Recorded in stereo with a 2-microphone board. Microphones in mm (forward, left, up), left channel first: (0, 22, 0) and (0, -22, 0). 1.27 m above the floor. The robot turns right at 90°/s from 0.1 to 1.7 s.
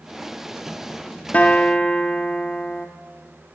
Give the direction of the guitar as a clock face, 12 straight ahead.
9 o'clock.